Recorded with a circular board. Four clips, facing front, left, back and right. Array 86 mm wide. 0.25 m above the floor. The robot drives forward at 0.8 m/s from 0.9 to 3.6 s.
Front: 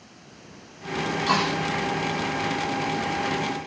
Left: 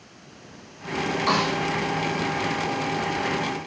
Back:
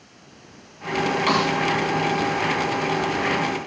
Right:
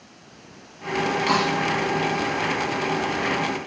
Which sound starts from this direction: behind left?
A snare drum, at 1.3 s.